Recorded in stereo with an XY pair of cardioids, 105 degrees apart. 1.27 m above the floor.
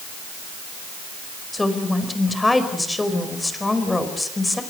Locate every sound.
1.5 s a woman speaking: 15° left, 4.5 m